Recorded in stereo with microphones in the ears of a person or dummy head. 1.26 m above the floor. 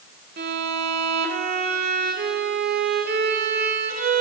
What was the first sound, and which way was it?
A violin, 50° right (ahead or behind).